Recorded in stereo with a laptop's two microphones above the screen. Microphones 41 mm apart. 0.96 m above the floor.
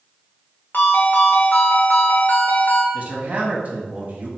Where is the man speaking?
35° right (ahead or behind), 1.1 m.